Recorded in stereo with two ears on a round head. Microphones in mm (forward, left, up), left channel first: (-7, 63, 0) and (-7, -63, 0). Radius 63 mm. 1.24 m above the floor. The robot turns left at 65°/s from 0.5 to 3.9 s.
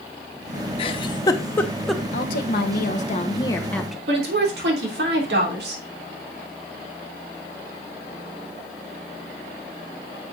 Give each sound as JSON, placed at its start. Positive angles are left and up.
{"t": 0.8, "sound": "a giggle", "side_deg": 40, "distance_m": 0.7}
{"t": 2.1, "sound": "a woman speaking", "azimuth_deg": 115, "distance_m": 1.2}
{"t": 4.1, "sound": "a woman speaking", "side_deg": -90, "distance_m": 3.0}